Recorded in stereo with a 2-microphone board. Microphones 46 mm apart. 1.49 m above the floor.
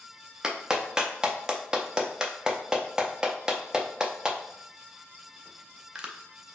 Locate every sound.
0.4 s a clap: 15° right (ahead or behind), 0.6 m